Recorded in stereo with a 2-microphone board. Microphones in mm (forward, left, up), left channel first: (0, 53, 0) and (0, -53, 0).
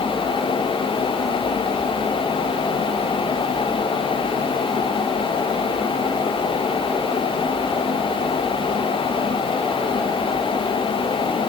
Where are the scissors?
No scissors in this recording.